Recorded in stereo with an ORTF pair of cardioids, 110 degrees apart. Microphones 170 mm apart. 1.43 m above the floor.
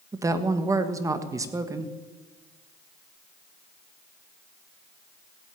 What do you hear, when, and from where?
0.1 s a woman speaking: 20° right, 1.5 m